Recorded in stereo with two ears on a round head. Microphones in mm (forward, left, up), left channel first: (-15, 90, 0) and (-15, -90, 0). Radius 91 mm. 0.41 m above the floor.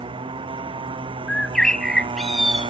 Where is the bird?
5° left (ahead or behind).